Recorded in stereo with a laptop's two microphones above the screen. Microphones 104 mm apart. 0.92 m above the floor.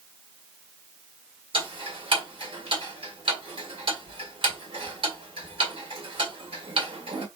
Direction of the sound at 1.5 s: 55° right (ahead or behind).